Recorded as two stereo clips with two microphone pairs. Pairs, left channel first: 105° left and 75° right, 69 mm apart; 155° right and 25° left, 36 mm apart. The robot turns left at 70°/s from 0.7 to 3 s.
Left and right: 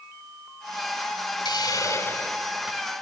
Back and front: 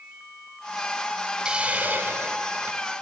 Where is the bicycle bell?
No bicycle bell in this recording.